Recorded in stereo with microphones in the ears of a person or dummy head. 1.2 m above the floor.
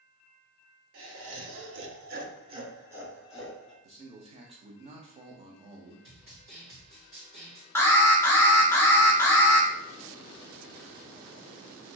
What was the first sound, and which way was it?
Laughter, 70° right (ahead or behind).